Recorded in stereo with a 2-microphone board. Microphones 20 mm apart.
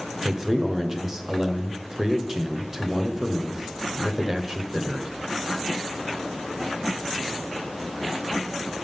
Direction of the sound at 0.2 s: 30° right (ahead or behind).